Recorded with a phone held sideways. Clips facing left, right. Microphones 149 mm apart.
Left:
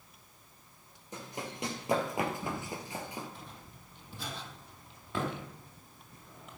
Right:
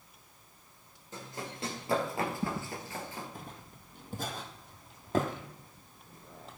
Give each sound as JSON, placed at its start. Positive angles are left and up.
{"t": 1.1, "sound": "running footsteps", "side_deg": 15, "distance_m": 3.0}
{"t": 2.4, "sound": "footsteps", "side_deg": -45, "distance_m": 2.5}